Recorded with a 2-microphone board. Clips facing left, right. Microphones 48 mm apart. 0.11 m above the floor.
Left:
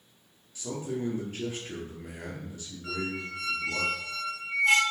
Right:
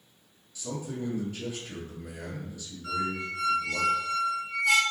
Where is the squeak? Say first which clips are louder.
Right 3 dB; 40° left (ahead or behind), 0.8 m.